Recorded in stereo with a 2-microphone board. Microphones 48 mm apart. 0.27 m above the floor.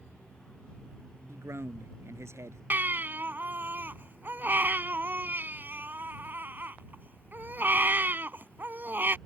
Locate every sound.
1.3 s a man speaking: 75° right (ahead or behind)
2.7 s a baby crying: 45° right (ahead or behind)